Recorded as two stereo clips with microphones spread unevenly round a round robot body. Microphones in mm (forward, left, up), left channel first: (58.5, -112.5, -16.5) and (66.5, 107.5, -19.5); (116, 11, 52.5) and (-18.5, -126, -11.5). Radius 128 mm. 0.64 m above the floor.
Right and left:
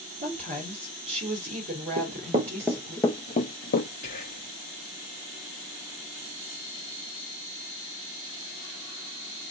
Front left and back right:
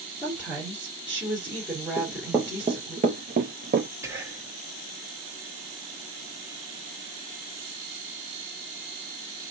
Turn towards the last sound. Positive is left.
turn(degrees=-115)